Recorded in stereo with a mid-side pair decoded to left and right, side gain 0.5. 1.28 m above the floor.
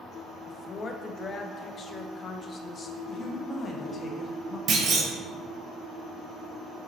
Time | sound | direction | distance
0.5 | a woman speaking | 40° left | 0.5 m
3.1 | a woman speaking | 35° left | 0.8 m
4.7 | a clunk | 55° right | 0.9 m